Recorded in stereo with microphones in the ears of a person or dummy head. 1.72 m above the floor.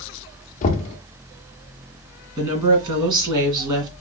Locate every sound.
0.6 s knocking: 40° left (ahead or behind), 0.7 m
2.4 s a woman speaking: 20° right (ahead or behind), 2 m